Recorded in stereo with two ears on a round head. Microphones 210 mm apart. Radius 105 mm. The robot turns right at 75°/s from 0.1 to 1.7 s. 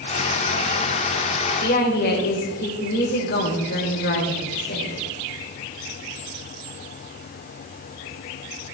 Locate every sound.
1.6 s a woman speaking: 50° left (ahead or behind), 3 m; by 5.0 s 45° left (ahead or behind), 3 m